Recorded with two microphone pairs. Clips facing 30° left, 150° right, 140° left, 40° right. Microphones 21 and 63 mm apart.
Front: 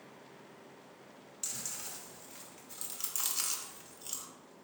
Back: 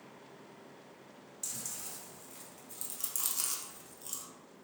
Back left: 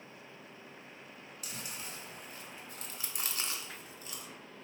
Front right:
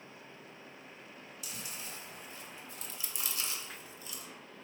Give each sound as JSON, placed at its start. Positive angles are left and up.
{"t": 1.4, "sound": "chewing", "azimuth_deg": 100, "distance_m": 0.7}